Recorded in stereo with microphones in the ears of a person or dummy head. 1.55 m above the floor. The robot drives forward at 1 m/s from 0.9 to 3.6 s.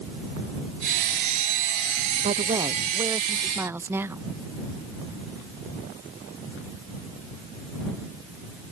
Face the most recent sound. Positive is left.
turn(degrees=-10)  # may be behind; listen again after turning